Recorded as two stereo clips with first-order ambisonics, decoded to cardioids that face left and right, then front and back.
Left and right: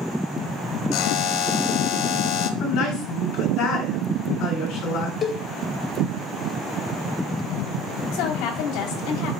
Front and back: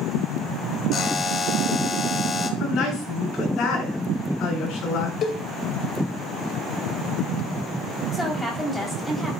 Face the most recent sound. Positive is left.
turn(degrees=85)